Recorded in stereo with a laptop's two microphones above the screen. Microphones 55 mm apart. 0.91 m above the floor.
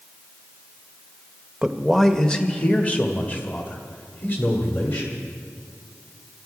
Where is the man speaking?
10° right (ahead or behind), 0.6 m; by 5.2 s 35° left (ahead or behind), 3 m.